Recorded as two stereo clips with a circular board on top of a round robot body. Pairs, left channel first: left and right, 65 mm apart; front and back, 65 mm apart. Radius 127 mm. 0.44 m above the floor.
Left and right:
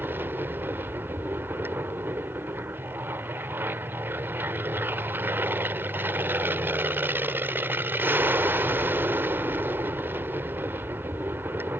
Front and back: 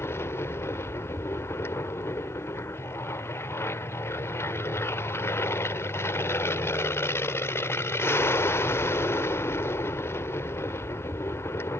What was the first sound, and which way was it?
An aircraft, 40° right.